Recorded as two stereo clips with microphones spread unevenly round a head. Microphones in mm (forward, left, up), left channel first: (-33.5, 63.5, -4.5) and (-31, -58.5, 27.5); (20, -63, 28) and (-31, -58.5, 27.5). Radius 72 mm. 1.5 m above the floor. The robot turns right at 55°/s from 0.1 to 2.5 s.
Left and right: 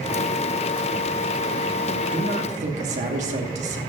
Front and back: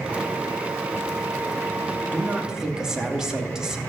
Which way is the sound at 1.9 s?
140° right.